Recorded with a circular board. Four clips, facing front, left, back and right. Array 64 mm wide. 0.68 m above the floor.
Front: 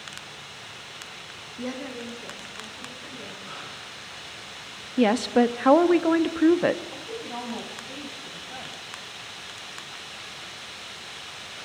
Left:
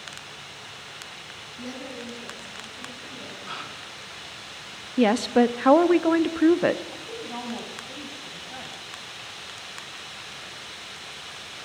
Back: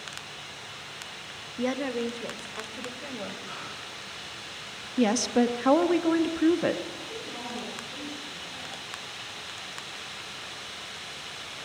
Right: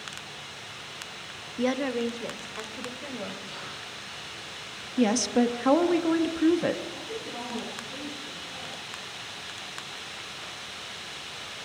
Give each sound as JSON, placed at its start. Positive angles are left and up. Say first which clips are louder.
{"t": 1.6, "sound": "a woman speaking", "louder": "right 11 dB, back 5 dB", "azimuth_deg": -110, "distance_m": 0.8}
{"t": 3.5, "sound": "a gasp", "louder": "left 4 dB, even", "azimuth_deg": 90, "distance_m": 3.5}
{"t": 5.0, "sound": "a woman speaking", "louder": "left 4 dB, front 3 dB", "azimuth_deg": 50, "distance_m": 0.7}
{"t": 6.9, "sound": "a woman speaking", "louder": "left 1 dB, front 3 dB", "azimuth_deg": 40, "distance_m": 4.0}